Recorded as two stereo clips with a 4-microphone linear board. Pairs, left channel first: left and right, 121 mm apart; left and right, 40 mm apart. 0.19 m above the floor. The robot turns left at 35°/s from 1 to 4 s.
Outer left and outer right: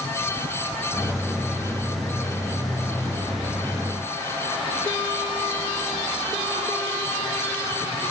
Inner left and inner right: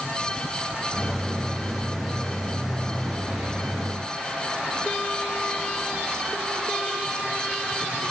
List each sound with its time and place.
Only background noise.